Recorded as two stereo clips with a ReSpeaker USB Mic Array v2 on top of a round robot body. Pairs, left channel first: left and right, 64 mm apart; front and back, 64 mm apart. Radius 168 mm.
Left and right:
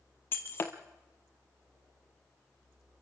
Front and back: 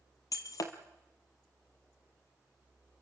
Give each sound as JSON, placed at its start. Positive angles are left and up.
{"t": 0.3, "sound": "breaking glass", "azimuth_deg": 35, "distance_m": 0.7}